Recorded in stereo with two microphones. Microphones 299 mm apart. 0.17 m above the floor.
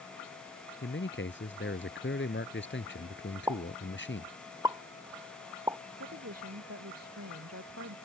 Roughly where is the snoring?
I don't hear snoring.